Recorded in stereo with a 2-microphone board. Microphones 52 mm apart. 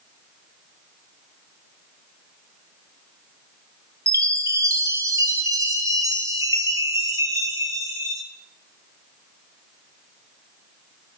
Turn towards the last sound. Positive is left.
turn(degrees=-75)  # may be behind; listen again after turning